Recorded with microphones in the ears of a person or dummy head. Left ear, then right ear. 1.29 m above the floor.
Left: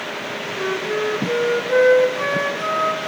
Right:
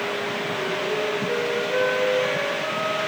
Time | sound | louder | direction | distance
0.6 | a flute | left 5 dB | 60° left (ahead or behind) | 3.5 m